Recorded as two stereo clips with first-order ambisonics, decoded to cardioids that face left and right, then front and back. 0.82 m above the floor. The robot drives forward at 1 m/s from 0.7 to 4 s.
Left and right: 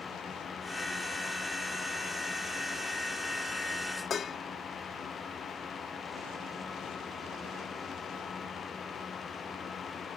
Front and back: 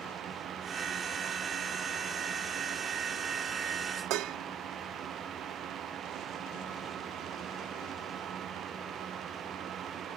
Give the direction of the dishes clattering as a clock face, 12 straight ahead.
7 o'clock.